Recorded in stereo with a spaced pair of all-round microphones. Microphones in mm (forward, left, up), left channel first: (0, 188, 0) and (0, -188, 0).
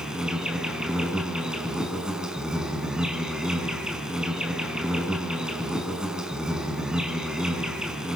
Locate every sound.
0.0 s an insect: centre (ahead or behind), 5.5 m